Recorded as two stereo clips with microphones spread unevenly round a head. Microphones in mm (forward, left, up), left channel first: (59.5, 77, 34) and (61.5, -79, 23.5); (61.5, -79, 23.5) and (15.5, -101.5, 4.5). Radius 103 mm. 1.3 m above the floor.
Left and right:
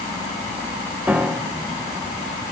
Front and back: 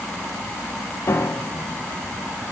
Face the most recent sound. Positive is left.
turn(degrees=-5)